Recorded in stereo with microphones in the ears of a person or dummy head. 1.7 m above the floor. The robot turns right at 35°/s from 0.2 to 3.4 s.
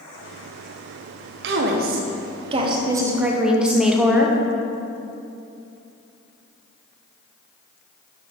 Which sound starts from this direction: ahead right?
A woman speaking, at 1.4 s.